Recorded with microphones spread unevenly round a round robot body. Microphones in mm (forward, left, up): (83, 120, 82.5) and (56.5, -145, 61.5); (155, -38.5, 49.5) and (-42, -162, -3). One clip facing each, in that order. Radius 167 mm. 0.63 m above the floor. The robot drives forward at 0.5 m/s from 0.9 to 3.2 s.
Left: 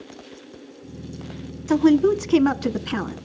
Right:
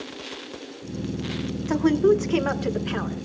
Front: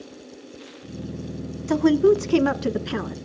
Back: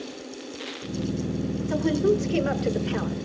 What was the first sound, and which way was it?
A woman speaking, 50° left.